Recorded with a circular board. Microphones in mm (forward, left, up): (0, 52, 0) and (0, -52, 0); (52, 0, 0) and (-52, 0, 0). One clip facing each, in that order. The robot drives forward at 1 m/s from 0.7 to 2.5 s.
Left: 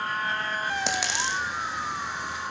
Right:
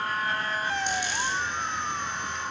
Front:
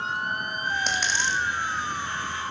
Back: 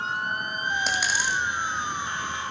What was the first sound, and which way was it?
A dropped coin, 90° left.